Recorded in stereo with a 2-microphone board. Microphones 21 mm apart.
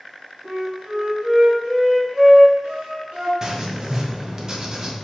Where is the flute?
85° right, 1.5 m.